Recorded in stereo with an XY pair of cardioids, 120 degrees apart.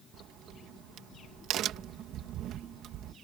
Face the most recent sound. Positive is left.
turn(degrees=-65)